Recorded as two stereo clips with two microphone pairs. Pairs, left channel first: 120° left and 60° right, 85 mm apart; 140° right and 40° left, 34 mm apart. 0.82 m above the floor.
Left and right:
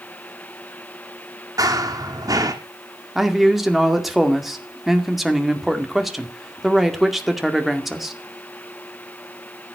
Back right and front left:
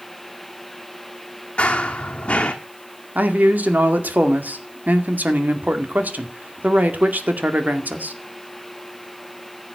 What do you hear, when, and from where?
1.6 s running footsteps: 90° right, 1.8 m
3.1 s a man speaking: 30° left, 2 m